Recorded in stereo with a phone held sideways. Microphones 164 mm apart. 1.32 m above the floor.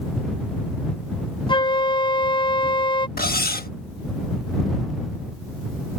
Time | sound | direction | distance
1.5 | a flute | 30° left (ahead or behind) | ?
3.2 | cutlery clinking | 70° left (ahead or behind) | ?